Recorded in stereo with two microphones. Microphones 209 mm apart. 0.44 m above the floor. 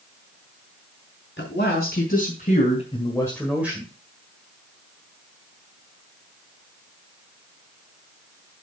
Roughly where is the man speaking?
Left.